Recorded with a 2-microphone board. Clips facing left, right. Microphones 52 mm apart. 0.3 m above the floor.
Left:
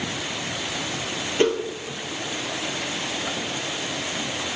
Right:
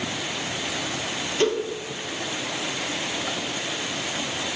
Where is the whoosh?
30° left (ahead or behind), 1.0 m.